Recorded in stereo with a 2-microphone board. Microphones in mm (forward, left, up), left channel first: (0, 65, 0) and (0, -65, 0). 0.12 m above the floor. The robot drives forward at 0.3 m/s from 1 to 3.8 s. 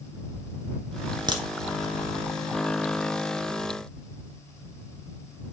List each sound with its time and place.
1.3 s a crack: 35° right (ahead or behind), 1.2 m